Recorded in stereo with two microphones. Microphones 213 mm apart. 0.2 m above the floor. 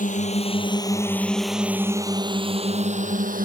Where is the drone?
35° left (ahead or behind); by 3.5 s 40° right (ahead or behind).